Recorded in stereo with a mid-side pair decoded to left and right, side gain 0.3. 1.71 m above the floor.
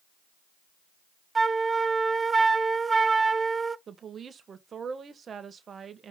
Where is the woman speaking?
65° right, 1.5 m.